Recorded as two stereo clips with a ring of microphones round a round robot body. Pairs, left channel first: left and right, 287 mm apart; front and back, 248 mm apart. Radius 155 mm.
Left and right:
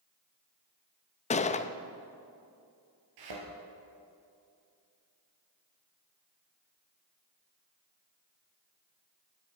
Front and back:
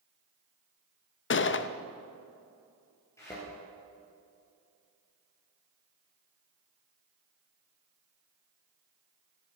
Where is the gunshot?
30° left, 0.6 m.